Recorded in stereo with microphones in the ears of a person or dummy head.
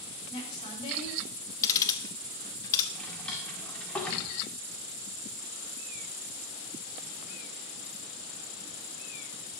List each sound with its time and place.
0.3 s a woman speaking: 30° left (ahead or behind), 4.5 m
1.6 s ticking: 20° left (ahead or behind), 1.2 m
2.9 s a drawer: 10° left (ahead or behind), 2 m